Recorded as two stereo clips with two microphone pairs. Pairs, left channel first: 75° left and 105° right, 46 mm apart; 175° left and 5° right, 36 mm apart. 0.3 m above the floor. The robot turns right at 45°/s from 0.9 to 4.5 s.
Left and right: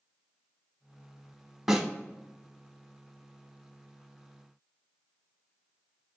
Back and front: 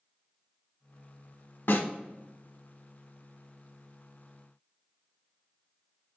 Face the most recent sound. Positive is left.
turn(degrees=-65)